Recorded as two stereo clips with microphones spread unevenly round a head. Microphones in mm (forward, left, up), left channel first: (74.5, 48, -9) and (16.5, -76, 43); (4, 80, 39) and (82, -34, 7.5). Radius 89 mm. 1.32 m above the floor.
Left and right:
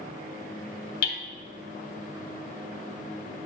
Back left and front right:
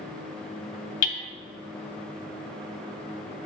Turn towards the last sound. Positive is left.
turn(degrees=95)